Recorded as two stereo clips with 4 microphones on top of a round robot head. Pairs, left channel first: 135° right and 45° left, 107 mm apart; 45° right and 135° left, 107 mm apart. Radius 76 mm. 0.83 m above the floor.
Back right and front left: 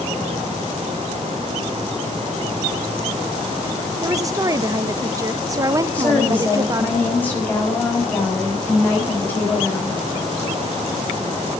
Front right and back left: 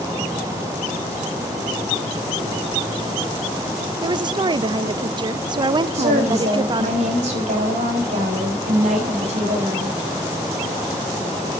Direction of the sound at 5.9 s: 150° left.